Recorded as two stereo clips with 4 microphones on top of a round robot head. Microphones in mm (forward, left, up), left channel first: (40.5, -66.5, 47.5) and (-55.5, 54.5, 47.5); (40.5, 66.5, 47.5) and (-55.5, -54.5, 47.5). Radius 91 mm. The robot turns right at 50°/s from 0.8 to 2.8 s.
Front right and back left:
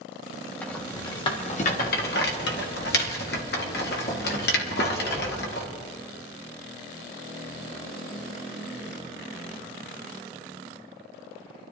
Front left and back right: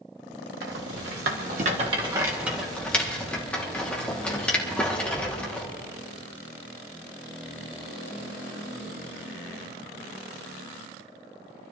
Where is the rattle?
130° right, 1.5 m; by 5.7 s 30° right, 1.5 m.